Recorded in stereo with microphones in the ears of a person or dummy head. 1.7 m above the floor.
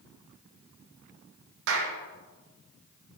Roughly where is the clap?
Right.